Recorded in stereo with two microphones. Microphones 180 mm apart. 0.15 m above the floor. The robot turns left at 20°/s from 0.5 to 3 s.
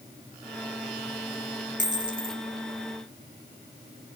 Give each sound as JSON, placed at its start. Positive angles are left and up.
{"t": 1.8, "sound": "a dropped coin", "side_deg": -45, "distance_m": 0.7}